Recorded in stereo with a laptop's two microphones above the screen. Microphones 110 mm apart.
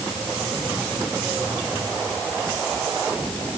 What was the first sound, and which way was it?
Only background noise.